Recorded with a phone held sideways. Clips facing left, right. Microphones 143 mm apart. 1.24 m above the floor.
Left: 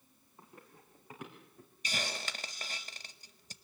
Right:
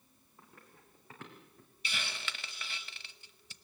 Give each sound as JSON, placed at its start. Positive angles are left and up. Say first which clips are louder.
{"t": 0.4, "sound": "running footsteps", "louder": "left 3 dB", "side_deg": 25, "distance_m": 5.0}
{"t": 1.8, "sound": "a hiss", "louder": "left 4 dB", "side_deg": 40, "distance_m": 1.0}